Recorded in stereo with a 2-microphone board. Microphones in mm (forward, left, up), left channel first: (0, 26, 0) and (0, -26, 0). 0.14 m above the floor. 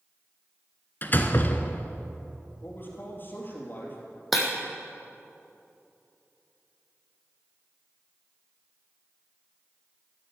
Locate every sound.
1.0 s a door slam: 40° left (ahead or behind), 1.0 m
2.6 s a man speaking: 40° left (ahead or behind), 3.5 m
4.3 s breaking glass: centre (ahead or behind), 3 m